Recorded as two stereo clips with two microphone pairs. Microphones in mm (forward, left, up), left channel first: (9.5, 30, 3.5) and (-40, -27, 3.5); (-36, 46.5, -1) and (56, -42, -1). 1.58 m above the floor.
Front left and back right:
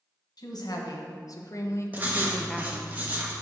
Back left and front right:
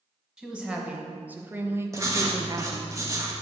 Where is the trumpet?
I don't hear a trumpet.